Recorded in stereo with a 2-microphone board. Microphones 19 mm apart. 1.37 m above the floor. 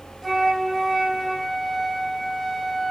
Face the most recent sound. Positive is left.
turn(degrees=-10)  # may be behind; listen again after turning